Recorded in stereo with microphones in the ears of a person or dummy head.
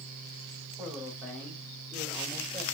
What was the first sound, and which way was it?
A man speaking, centre (ahead or behind).